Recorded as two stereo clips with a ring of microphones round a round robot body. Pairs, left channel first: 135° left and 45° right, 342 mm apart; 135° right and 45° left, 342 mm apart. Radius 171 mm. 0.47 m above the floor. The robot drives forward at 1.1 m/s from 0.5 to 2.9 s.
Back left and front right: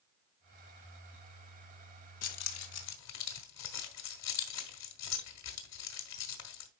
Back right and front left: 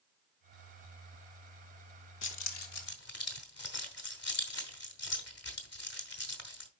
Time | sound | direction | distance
2.2 | keys jangling | 175° left | 1.1 m